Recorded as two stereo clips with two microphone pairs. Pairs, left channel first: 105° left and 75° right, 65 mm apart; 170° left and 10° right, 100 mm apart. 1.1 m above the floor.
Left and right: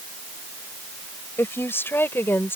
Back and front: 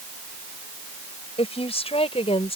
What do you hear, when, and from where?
1.4 s a woman speaking: 160° left